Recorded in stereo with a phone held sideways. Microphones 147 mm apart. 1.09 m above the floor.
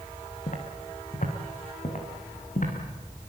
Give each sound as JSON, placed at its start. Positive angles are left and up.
{"t": 0.5, "sound": "footsteps", "side_deg": 60, "distance_m": 5.0}